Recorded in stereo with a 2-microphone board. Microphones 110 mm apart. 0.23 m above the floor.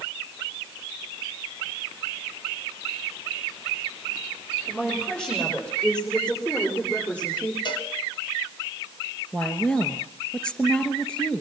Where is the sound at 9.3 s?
10° left (ahead or behind), 3.5 m.